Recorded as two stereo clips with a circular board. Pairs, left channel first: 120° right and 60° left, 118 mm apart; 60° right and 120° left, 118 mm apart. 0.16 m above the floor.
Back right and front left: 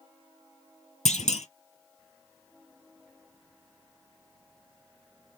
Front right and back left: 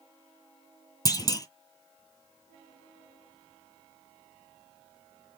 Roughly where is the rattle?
No rattle in this recording.